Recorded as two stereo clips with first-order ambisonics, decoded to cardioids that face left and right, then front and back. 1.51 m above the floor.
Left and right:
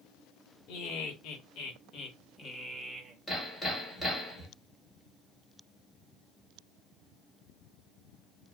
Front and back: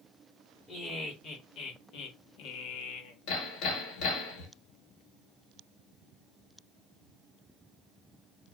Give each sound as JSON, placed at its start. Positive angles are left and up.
{"t": 0.7, "sound": "laughter", "azimuth_deg": 70, "distance_m": 1.7}
{"t": 3.3, "sound": "hammering", "azimuth_deg": 15, "distance_m": 1.4}